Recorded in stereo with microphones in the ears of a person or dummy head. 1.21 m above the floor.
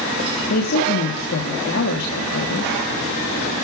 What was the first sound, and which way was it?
A woman speaking, 65° left (ahead or behind).